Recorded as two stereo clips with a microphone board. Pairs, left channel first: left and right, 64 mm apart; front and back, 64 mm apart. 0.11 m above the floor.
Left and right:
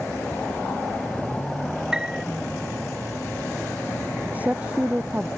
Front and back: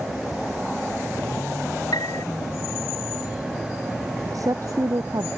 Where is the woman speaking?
155° right.